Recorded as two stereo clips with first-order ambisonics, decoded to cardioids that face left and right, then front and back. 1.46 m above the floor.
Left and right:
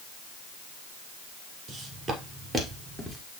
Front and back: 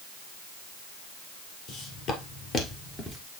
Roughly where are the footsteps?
Ahead.